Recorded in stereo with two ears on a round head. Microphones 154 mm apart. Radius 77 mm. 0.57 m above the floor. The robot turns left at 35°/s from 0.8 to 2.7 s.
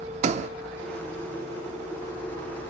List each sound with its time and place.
0.2 s a sliding door: 40° right (ahead or behind), 0.8 m